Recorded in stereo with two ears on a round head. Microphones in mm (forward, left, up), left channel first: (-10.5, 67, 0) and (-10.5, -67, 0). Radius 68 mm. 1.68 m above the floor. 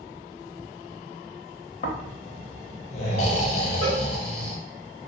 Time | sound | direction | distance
1.8 | snoring | 45° left (ahead or behind) | 0.6 m
3.8 | a cowbell | 40° right (ahead or behind) | 1.0 m